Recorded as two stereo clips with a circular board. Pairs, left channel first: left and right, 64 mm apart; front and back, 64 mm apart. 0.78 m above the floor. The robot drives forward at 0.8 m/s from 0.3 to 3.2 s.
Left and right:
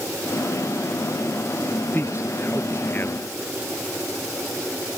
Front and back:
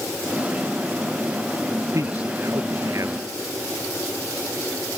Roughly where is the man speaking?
Behind left.